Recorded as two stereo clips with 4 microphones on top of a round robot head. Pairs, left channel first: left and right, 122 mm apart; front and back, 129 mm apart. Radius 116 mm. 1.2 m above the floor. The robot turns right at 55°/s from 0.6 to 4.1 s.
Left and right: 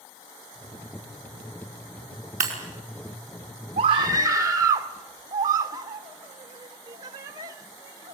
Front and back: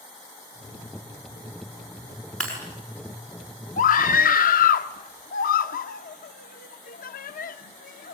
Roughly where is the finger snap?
No finger snap in this recording.